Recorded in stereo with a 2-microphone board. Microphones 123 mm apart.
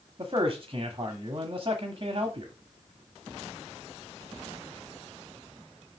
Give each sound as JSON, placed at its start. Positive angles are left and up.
{"t": 0.2, "sound": "a man speaking", "side_deg": -40, "distance_m": 1.2}